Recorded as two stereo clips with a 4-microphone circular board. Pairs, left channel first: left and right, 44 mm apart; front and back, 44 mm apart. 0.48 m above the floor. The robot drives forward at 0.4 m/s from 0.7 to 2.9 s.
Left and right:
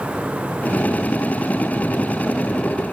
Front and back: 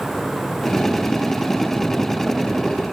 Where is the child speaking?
No child speaking in this recording.